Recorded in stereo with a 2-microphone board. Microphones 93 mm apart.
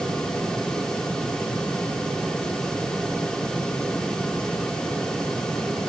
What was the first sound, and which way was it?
Only background noise.